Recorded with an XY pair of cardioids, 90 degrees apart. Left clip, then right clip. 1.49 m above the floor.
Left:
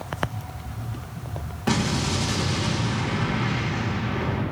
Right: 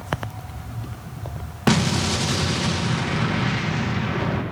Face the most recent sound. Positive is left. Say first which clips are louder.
# right 4 dB
turn(degrees=-65)